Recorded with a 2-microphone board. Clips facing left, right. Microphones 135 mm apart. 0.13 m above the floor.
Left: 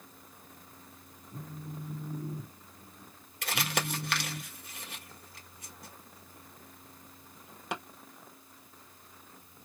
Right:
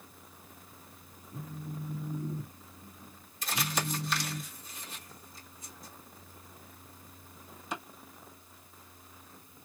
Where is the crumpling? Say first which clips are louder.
Left 1 dB; 65° left (ahead or behind), 1.4 m.